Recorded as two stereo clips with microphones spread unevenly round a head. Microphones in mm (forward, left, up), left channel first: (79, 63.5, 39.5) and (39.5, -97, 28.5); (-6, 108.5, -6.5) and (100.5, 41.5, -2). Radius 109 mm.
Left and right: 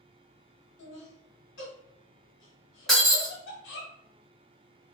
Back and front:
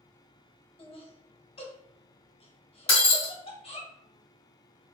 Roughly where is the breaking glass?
Behind.